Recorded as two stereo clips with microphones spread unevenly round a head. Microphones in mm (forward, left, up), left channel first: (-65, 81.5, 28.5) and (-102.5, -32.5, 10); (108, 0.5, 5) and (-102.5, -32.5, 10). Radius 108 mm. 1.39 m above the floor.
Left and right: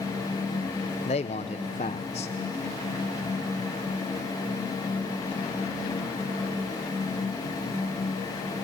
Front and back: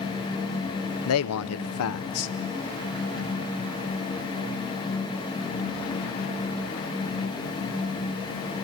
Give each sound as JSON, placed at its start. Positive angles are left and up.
{"t": 1.1, "sound": "a man speaking", "azimuth_deg": 15, "distance_m": 0.9}